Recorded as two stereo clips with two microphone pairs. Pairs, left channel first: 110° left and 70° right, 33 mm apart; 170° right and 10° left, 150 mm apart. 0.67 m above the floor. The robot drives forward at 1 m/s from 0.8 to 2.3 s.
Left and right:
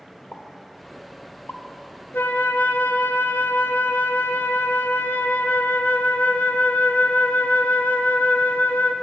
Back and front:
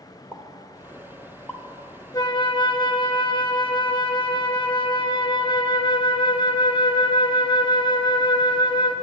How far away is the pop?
About 1.5 m.